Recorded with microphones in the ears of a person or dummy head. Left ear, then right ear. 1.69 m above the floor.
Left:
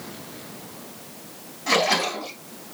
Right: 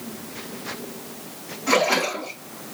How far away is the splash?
About 2.5 m.